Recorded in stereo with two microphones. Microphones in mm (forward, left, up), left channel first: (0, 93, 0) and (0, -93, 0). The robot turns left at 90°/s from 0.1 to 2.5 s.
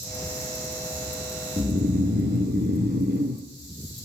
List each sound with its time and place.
1.6 s snoring: 30° right, 1.5 m; by 3.4 s 115° right, 1.5 m